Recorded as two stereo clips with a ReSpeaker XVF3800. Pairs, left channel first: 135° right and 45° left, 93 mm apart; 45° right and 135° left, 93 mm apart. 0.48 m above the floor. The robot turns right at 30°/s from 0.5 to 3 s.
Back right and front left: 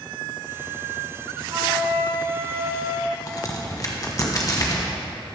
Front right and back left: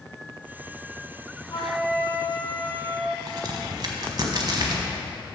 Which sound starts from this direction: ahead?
A flute, at 1.5 s.